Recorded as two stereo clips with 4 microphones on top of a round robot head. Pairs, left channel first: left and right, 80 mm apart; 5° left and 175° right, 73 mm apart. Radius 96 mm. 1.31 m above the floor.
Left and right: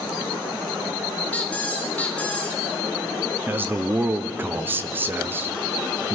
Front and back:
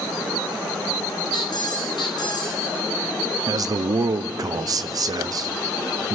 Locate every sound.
1.3 s a squeak: 20° left, 1.0 m
3.5 s a man speaking: 150° right, 0.6 m